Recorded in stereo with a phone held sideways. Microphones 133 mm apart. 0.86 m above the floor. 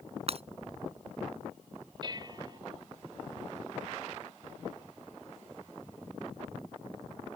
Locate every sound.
0.3 s breaking glass: 50° right (ahead or behind)
2.0 s dishes clattering: 35° right (ahead or behind)